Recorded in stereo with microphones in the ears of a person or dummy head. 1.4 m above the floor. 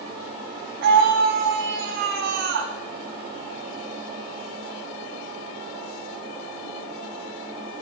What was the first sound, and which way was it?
A scream, 55° right (ahead or behind).